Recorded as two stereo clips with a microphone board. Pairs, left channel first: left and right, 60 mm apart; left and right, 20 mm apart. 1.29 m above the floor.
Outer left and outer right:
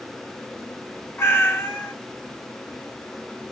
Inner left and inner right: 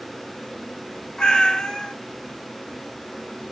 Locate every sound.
1.2 s a cat meowing: 35° left (ahead or behind), 0.7 m